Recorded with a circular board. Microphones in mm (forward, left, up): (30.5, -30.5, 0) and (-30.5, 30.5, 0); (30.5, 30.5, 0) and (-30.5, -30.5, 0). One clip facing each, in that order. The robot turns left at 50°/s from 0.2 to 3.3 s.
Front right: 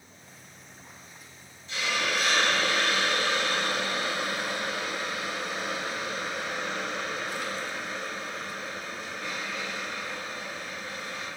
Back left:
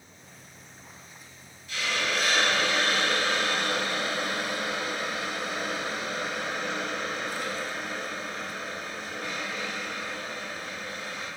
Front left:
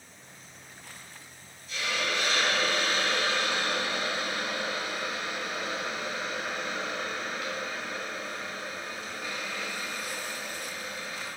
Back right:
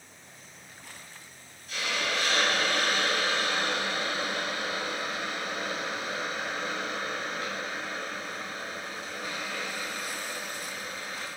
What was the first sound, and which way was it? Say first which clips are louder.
A hiss: even, even; 105° right.